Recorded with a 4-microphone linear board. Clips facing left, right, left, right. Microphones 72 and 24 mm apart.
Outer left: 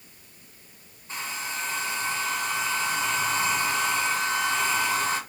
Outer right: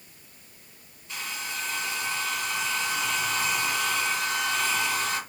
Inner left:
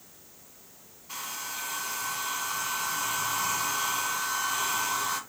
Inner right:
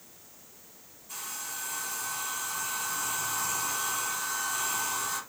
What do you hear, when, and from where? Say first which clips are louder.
1.1 s a hair dryer: outer left 2 dB, inner left 3 dB; 35° left (ahead or behind), 1.5 m